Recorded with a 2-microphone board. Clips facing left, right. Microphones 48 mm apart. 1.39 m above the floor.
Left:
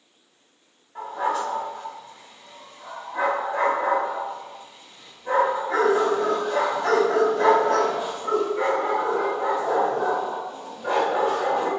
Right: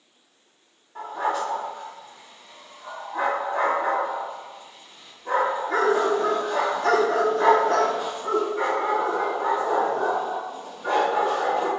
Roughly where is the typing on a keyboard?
I don't hear typing on a keyboard.